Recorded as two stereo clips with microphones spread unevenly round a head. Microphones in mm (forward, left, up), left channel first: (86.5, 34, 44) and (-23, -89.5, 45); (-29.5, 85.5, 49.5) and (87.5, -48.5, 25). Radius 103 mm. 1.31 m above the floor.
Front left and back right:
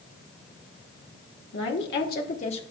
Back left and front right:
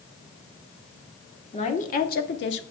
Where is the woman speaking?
75° left, 1.1 m; by 2.6 s 110° left, 0.8 m.